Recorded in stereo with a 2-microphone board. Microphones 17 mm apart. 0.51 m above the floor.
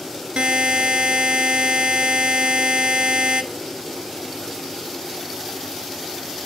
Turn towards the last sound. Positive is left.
turn(degrees=-85)